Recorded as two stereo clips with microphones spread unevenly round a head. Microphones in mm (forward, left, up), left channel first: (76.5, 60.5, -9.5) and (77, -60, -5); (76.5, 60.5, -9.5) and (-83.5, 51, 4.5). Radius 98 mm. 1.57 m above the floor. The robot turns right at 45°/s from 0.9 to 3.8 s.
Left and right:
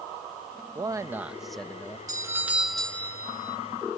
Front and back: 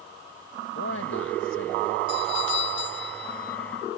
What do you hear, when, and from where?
0.8 s a man speaking: 25° right; by 2.0 s 20° left
2.1 s a doorbell: 30° right; by 3.6 s 40° left